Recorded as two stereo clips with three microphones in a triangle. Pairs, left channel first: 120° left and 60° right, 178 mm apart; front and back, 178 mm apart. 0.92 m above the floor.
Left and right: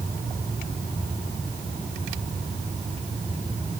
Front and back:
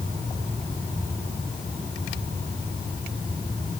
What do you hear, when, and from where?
Only background noise.